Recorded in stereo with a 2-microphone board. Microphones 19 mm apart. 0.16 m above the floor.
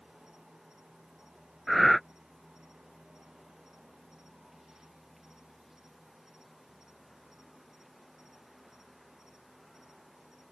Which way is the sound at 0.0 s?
25° right (ahead or behind).